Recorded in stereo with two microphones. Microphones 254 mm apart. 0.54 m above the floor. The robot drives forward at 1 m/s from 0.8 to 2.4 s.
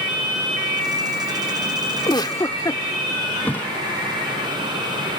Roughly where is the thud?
Centre.